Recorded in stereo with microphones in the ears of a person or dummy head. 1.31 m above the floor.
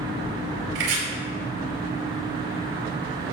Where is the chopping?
75° right (ahead or behind), 4 m.